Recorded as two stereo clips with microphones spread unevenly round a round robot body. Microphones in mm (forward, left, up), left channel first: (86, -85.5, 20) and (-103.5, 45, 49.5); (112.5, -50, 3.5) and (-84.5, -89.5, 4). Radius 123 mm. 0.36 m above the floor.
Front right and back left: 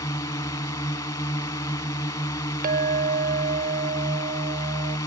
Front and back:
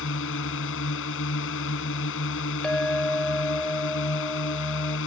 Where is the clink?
95° left.